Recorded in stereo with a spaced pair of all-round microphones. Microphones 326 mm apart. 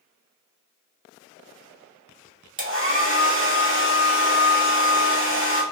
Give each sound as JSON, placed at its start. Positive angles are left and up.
{"t": 2.6, "sound": "a hair dryer", "side_deg": -40, "distance_m": 0.9}